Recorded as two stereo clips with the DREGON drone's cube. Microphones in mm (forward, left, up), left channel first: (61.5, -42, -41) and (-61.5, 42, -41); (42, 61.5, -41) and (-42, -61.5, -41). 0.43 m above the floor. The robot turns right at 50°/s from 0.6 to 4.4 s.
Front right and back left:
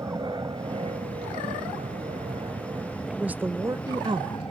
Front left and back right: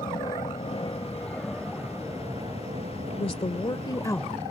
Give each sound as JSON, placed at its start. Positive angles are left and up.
{"t": 0.0, "sound": "an aircraft", "azimuth_deg": 95}
{"t": 3.1, "sound": "a woman speaking", "azimuth_deg": 60}